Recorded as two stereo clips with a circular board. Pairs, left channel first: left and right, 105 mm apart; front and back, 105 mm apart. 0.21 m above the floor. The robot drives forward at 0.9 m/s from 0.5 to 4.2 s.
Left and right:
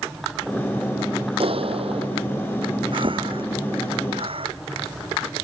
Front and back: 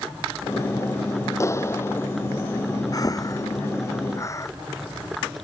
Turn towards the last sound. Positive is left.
turn(degrees=-60)